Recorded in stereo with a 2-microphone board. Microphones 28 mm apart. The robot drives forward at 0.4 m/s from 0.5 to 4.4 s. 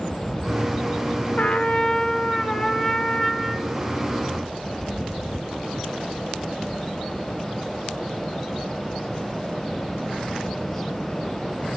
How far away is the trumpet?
About 0.6 m.